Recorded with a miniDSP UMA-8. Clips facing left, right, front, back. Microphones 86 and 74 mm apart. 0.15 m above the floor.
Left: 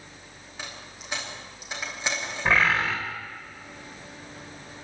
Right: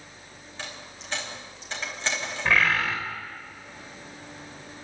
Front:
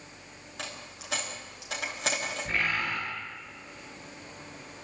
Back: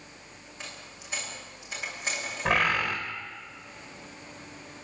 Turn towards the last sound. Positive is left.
turn(degrees=155)